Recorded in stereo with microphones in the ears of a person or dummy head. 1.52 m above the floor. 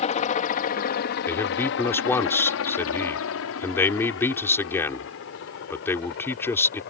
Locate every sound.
0.0 s a helicopter: 40° left (ahead or behind); by 6.9 s 55° left (ahead or behind)
1.3 s a man speaking: 10° left (ahead or behind)